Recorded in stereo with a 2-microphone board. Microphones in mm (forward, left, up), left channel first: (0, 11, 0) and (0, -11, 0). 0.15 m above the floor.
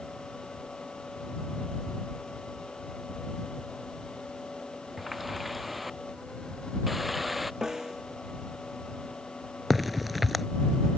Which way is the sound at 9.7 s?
5° right (ahead or behind).